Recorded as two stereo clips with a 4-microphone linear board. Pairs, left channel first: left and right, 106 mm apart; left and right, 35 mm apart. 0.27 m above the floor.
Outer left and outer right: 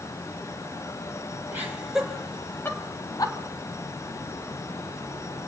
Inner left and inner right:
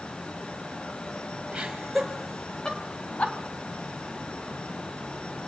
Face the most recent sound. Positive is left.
turn(degrees=40)  # may be behind; listen again after turning